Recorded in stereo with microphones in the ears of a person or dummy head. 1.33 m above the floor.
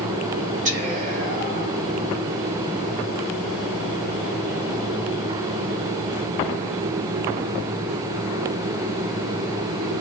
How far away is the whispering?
About 1.5 m.